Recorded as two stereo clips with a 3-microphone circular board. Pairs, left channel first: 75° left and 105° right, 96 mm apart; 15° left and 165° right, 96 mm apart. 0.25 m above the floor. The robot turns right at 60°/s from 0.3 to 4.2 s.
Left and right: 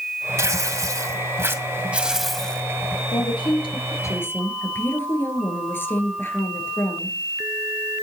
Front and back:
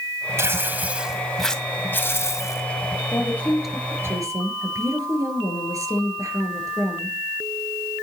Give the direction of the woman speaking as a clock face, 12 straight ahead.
10 o'clock.